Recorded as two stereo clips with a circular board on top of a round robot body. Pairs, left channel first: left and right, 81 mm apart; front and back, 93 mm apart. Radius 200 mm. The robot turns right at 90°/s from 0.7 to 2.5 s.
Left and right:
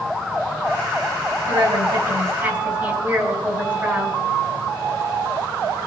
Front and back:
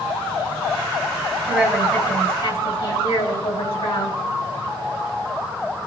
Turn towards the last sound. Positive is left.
turn(degrees=-25)